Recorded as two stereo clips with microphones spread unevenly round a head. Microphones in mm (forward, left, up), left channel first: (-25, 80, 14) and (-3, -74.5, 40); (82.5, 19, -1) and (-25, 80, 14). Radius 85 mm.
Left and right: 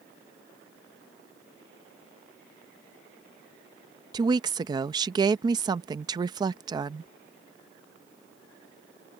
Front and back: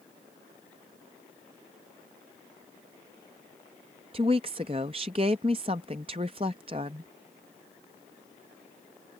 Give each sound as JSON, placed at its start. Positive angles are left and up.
{"t": 4.1, "sound": "a woman speaking", "azimuth_deg": -150}